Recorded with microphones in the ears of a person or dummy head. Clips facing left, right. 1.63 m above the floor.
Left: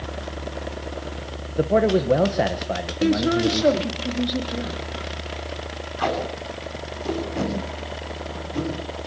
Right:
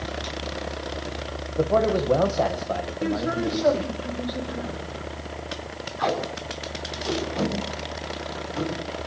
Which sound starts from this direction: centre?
A man speaking, at 1.6 s.